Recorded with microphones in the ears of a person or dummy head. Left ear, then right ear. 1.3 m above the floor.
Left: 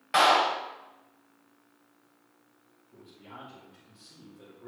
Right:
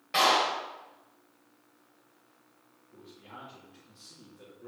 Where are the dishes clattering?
I don't hear dishes clattering.